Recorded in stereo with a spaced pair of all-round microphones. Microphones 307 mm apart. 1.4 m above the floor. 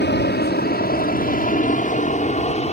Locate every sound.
0.0 s an aircraft: 35° left (ahead or behind); by 2.7 s 20° left (ahead or behind)